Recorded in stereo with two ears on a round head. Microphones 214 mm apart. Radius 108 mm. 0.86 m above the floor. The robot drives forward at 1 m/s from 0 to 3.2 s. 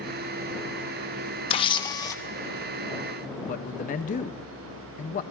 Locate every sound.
1.5 s a camera shutter: 25° left (ahead or behind), 1.0 m; by 2.2 s 15° left (ahead or behind), 1.6 m
3.5 s a man speaking: 35° left (ahead or behind), 1.0 m